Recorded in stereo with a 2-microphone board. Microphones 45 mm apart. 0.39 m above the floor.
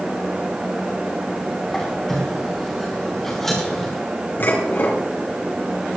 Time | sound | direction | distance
1.7 | a squeak | 10° left (ahead or behind) | 6 m
4.4 | dishes clattering | 50° left (ahead or behind) | 4 m